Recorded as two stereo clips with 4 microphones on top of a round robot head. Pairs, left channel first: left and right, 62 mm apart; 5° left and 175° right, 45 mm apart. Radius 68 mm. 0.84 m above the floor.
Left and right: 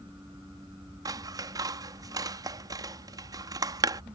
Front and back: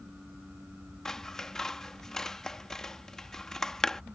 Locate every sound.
1.1 s scissors: 75° right